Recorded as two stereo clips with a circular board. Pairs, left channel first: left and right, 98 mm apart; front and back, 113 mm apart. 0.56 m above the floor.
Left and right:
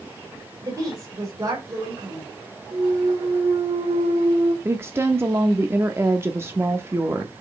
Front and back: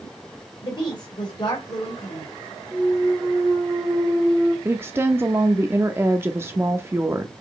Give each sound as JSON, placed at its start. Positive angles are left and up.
{"t": 0.6, "sound": "a woman speaking", "azimuth_deg": -40, "distance_m": 2.5}
{"t": 2.7, "sound": "a clunk", "azimuth_deg": -105, "distance_m": 1.8}
{"t": 4.7, "sound": "a woman speaking", "azimuth_deg": -130, "distance_m": 0.7}